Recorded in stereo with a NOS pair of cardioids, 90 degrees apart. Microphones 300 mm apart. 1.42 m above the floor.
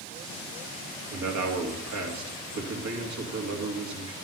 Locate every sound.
1.1 s a man speaking: 65° right, 2 m